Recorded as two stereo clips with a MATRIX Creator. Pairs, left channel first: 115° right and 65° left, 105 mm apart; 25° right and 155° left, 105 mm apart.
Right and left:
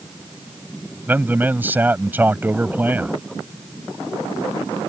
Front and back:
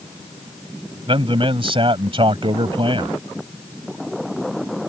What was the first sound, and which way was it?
A man speaking, 135° left.